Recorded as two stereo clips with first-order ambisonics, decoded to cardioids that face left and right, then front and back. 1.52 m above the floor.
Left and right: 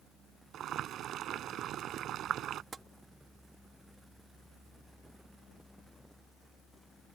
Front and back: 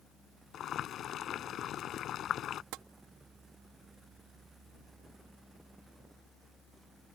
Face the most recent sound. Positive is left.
turn(degrees=-160)